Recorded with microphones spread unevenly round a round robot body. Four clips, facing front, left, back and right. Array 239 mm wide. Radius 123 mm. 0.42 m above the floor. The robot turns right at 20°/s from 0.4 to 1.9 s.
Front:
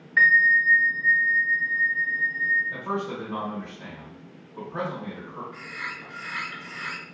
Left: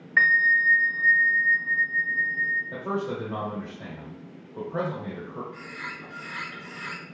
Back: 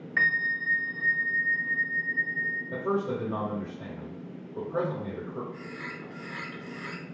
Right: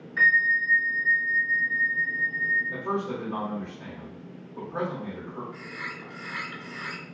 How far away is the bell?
About 0.8 m.